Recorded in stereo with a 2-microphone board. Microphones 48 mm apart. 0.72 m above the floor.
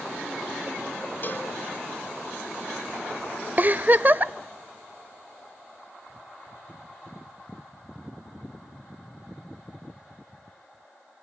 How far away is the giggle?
About 0.6 m.